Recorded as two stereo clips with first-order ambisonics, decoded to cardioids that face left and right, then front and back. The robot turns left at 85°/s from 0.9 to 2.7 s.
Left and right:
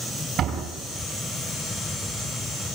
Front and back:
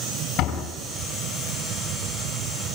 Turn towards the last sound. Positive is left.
turn(degrees=165)